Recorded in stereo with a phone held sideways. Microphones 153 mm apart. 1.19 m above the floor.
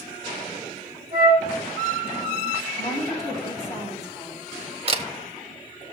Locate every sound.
1.1 s a flute: 10° right (ahead or behind), 5.5 m
2.8 s a woman speaking: 20° left (ahead or behind), 3 m
4.9 s a camera shutter: 40° right (ahead or behind), 0.8 m